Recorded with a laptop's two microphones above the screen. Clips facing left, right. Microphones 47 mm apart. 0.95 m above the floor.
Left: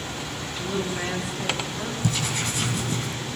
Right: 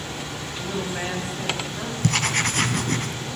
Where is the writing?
60° right (ahead or behind), 2.5 m.